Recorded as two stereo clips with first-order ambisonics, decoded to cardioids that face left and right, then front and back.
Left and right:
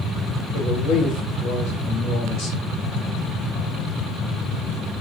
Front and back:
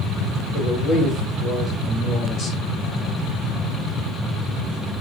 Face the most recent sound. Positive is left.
turn(degrees=55)